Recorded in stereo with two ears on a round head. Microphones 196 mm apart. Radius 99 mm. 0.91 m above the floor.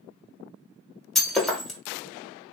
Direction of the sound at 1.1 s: Centre (ahead or behind).